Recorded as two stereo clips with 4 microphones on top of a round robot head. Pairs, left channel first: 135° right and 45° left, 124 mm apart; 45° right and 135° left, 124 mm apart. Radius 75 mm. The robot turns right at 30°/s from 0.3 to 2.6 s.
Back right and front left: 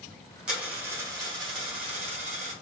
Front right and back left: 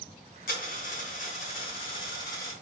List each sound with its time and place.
0.5 s a dropped coin: 40° right, 1.5 m; by 2.5 s 25° left, 1.5 m